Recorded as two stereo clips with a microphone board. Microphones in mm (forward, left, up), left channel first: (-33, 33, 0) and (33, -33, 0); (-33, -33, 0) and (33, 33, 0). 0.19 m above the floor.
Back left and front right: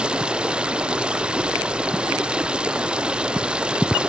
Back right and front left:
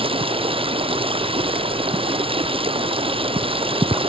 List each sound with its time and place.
0.0 s running water: 35° left